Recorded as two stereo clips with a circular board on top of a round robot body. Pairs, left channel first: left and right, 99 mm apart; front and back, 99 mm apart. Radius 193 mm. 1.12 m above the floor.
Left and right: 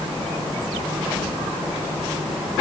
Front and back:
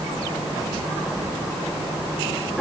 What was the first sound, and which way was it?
Only background noise.